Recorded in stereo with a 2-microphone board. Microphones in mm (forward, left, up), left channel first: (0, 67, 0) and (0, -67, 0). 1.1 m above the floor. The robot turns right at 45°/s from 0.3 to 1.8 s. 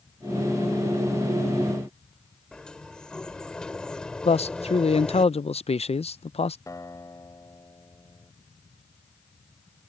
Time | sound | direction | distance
2.5 | a sliding door | 5° left (ahead or behind) | ?
4.2 | a man speaking | 55° left (ahead or behind) | ?
6.7 | a guitar | 25° left (ahead or behind) | ?